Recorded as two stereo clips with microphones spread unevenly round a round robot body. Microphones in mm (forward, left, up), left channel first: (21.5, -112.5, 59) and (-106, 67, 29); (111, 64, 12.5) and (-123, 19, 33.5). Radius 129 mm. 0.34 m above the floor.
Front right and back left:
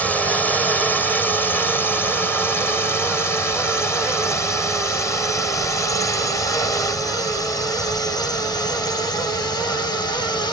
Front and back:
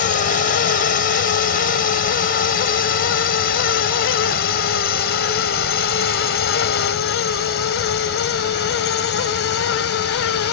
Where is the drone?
35° left; by 10.5 s 20° left.